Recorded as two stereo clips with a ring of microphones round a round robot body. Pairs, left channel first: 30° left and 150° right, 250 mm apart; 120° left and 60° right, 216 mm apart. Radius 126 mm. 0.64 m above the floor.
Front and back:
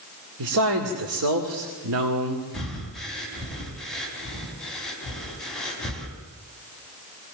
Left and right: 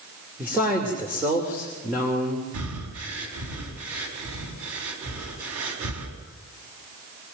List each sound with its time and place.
0.4 s a man speaking: 140° right, 2.5 m
2.5 s breathing: 60° right, 4.5 m